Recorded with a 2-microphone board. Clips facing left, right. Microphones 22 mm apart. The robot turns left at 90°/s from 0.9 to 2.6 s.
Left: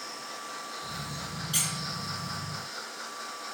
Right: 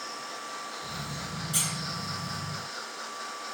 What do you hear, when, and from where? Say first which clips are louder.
1.5 s a squeak: even; 45° left (ahead or behind), 1.7 m; by 1.7 s 30° left (ahead or behind), 1.7 m